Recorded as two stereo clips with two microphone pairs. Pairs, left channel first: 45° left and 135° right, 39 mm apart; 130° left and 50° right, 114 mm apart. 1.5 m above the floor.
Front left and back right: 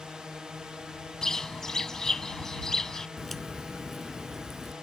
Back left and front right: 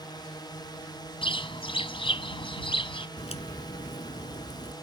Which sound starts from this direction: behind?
A drone, at 0.0 s.